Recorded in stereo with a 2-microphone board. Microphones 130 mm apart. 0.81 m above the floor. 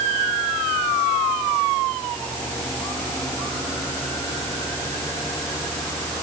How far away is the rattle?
No rattle in this recording.